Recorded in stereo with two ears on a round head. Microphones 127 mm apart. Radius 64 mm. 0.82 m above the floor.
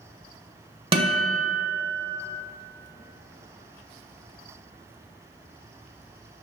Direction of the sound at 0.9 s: 40° right (ahead or behind).